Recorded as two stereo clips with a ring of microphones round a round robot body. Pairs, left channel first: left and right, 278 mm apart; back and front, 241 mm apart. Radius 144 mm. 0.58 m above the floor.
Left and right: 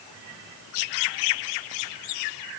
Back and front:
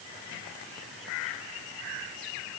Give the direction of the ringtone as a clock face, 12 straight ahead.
No ringtone in this recording.